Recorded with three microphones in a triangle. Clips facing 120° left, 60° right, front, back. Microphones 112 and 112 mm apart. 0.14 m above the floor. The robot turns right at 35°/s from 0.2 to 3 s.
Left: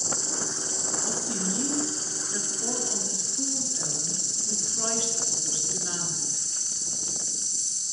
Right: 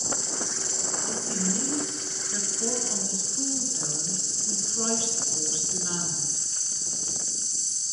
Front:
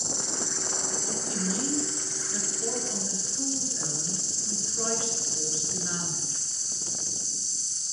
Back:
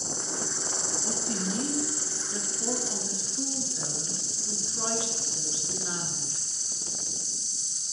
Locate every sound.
0.0 s an insect: 10° left, 1.9 m; by 7.9 s 105° left, 1.9 m
1.1 s a woman speaking: 175° right, 2 m; by 6.5 s 110° right, 2 m